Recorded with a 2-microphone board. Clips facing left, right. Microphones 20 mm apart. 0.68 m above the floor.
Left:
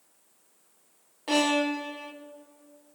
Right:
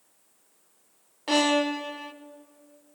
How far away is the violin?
About 0.8 m.